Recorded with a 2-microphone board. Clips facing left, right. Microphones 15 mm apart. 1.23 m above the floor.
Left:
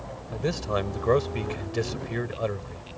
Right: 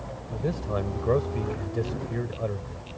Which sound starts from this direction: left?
A man speaking, at 0.3 s.